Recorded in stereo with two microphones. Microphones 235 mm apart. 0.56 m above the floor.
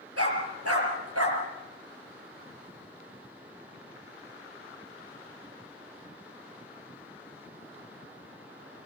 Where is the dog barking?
80° right, 4.5 m.